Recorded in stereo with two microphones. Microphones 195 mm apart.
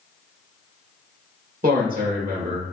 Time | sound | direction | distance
1.6 | a man speaking | 45° right (ahead or behind) | 1.3 m